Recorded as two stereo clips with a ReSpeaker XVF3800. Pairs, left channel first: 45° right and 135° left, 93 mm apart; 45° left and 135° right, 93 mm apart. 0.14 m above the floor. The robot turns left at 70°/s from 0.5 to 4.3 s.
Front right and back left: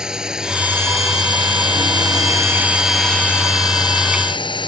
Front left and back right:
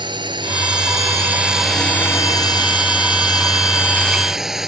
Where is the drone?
145° right; by 4.7 s 50° right.